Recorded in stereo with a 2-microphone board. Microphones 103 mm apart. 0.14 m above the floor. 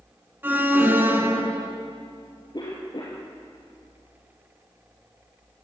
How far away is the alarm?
About 2.5 m.